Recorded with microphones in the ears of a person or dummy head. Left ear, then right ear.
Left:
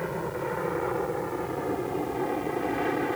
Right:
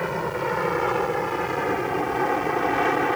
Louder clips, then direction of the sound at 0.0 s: Right 5 dB; 70° right (ahead or behind).